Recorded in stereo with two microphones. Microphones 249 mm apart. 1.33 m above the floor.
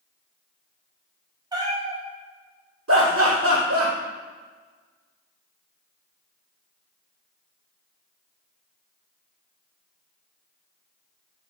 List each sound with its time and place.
1.5 s a cat meowing: 15° right (ahead or behind), 0.6 m
2.9 s laughter: 75° right (ahead or behind), 0.7 m